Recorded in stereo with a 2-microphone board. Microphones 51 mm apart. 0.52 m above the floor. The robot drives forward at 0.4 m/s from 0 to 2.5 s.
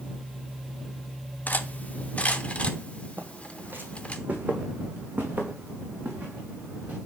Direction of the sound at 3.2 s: 45° right (ahead or behind).